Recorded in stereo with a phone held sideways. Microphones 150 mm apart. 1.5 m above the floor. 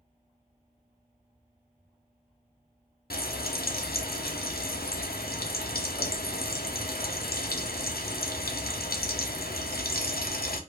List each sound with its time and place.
3.1 s frying: 75° left (ahead or behind), 0.5 m